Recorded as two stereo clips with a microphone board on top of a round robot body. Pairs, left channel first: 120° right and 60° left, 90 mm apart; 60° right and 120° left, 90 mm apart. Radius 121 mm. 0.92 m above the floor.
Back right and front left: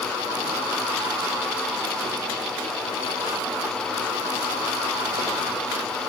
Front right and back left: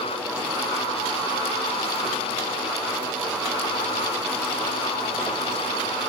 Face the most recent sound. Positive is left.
No sound to turn to.